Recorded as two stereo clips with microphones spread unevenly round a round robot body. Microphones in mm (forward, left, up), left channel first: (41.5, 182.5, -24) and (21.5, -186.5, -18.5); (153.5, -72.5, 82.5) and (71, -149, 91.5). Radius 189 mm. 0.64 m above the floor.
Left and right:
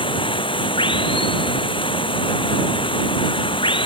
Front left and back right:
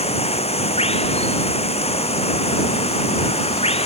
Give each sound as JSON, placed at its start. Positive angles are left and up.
{"t": 0.0, "sound": "running water", "azimuth_deg": 10}